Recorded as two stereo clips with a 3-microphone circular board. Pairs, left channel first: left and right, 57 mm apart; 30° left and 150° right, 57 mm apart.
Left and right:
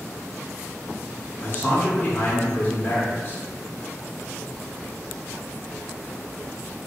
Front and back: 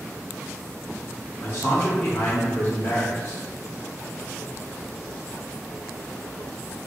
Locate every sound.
1.4 s a man speaking: 50° left, 0.8 m